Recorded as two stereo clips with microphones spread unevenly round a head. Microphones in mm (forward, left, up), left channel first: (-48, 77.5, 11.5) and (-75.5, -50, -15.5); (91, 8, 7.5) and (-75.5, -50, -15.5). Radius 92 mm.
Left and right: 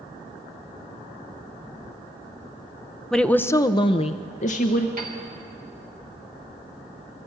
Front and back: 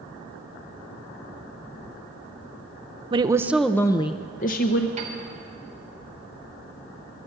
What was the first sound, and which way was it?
A woman speaking, straight behind.